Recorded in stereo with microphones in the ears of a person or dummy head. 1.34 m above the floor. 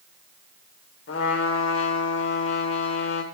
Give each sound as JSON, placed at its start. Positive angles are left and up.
{"t": 1.1, "sound": "a trumpet", "side_deg": 75, "distance_m": 1.3}